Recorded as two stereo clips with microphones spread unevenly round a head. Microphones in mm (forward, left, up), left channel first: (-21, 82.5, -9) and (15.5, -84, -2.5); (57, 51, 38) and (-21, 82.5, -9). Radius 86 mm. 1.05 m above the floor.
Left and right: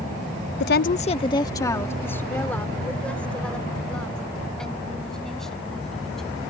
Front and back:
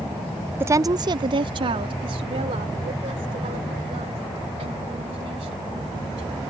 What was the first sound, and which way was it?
A woman speaking, 115° left.